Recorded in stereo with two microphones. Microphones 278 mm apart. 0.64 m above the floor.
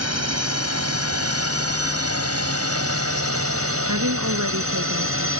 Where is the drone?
60° right (ahead or behind); by 5.4 s 50° right (ahead or behind).